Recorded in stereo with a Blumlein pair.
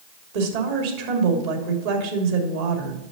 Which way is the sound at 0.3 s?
55° right.